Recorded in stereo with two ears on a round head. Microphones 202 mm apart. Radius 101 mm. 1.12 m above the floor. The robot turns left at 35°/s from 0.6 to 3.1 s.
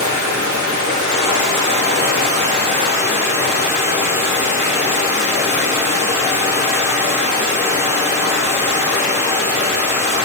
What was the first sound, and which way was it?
Running water, 80° right.